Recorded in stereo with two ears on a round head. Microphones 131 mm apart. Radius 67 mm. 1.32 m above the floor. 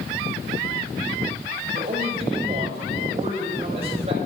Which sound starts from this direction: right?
A man speaking, at 1.7 s.